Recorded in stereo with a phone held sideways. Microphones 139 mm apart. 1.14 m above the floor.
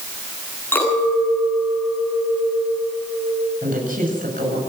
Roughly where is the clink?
Centre.